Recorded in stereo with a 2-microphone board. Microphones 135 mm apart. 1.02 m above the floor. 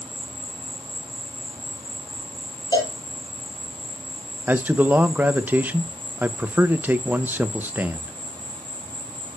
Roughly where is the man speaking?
Centre.